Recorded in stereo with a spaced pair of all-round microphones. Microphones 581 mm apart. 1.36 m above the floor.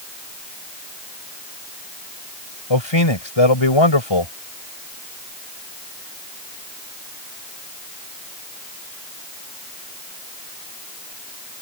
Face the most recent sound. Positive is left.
turn(degrees=55)  # may be behind; listen again after turning